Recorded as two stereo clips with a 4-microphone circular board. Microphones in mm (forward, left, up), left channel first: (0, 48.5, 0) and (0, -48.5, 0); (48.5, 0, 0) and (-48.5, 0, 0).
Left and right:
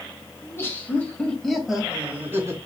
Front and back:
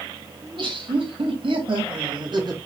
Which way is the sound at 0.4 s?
150° left.